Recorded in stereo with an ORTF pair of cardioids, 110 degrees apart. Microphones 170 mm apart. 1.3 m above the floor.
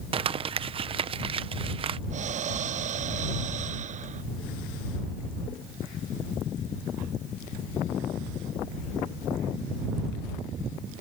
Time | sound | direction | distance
0.1 | crumpling | 35° right | ?
2.1 | breathing | 50° right | ?